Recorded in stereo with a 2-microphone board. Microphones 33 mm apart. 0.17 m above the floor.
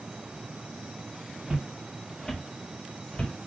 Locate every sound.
1.5 s footsteps: 30° right (ahead or behind), 1.1 m; by 3.3 s 40° left (ahead or behind), 1.7 m